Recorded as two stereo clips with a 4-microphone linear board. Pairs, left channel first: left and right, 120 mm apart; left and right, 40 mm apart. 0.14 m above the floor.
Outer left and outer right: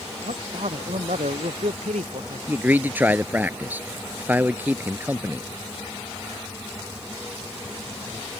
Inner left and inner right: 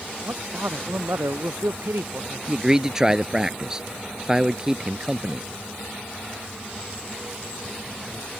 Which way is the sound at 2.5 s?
15° right (ahead or behind).